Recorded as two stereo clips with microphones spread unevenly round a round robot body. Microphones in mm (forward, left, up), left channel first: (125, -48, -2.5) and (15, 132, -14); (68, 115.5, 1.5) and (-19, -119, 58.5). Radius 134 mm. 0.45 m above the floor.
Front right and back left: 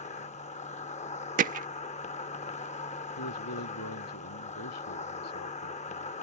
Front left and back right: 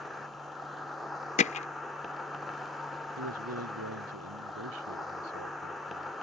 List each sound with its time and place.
0.0 s an insect: 10° right
1.4 s hammering: 100° left
3.2 s a man speaking: 80° right